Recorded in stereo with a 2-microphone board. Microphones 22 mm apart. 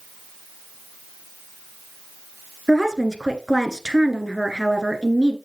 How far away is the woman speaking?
About 1.4 m.